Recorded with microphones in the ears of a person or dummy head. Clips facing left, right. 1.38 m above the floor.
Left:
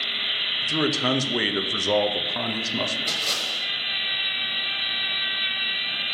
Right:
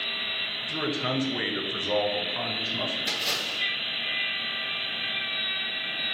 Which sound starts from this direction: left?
A man speaking, at 0.6 s.